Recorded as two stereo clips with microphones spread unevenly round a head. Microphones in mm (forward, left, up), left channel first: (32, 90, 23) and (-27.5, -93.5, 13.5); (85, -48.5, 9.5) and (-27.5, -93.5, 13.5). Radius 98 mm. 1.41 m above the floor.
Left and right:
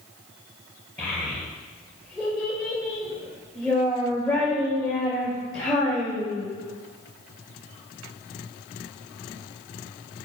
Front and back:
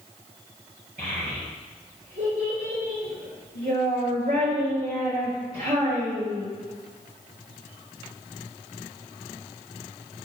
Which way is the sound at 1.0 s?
160° left.